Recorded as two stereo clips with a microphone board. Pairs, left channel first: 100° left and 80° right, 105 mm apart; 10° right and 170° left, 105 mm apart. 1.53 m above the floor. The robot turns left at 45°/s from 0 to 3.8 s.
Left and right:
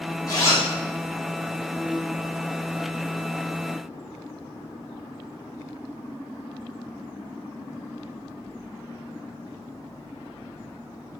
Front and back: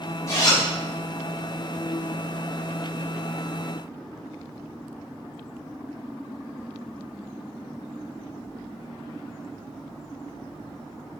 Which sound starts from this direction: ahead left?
A zipper, at 0.3 s.